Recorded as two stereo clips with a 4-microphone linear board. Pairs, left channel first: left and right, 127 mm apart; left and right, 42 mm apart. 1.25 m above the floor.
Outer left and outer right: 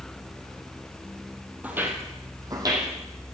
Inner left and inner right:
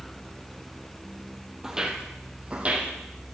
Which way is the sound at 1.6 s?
15° right (ahead or behind).